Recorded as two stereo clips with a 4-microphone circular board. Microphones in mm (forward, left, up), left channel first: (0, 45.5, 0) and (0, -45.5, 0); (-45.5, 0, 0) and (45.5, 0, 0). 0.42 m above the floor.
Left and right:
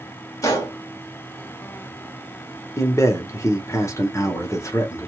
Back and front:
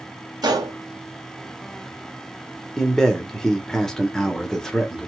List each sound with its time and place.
0.4 s a gunshot: 40° left, 1.0 m
2.8 s a man speaking: 100° left, 0.8 m